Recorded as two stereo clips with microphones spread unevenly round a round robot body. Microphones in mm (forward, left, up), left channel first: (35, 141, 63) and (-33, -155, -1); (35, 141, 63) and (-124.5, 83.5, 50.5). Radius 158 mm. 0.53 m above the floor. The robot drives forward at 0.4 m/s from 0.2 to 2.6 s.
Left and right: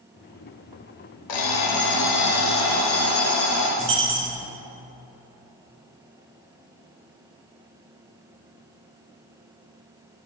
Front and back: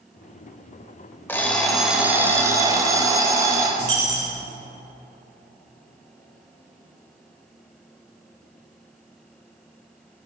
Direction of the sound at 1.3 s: 100° left.